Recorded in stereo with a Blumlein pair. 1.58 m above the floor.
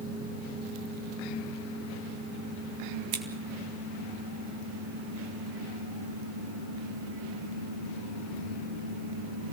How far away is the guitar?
No guitar in this recording.